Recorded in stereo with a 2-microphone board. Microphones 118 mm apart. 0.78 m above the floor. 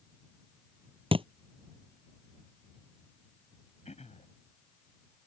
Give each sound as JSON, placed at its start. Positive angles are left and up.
{"t": 1.1, "sound": "a thud", "side_deg": -50}
{"t": 3.9, "sound": "throat clearing", "side_deg": 75}